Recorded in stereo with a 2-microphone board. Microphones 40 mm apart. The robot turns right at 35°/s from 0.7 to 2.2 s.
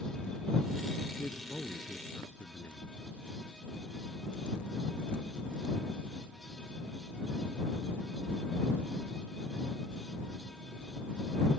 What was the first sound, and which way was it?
A man speaking, 55° left.